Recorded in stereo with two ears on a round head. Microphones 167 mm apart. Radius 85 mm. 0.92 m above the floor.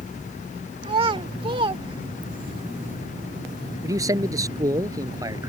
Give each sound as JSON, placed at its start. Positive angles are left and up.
{"t": 0.8, "sound": "a child speaking", "side_deg": -30}
{"t": 3.8, "sound": "a man speaking", "side_deg": -20}